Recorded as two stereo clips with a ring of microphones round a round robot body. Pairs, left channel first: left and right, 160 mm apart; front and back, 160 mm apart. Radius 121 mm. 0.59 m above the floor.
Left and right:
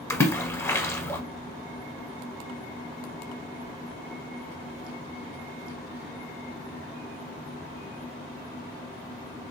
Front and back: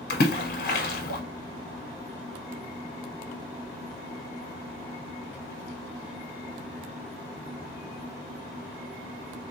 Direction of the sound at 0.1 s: 15° left.